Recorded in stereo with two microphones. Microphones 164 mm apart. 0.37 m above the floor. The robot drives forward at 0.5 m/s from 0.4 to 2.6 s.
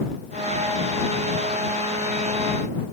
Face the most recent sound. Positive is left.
No sound to turn to.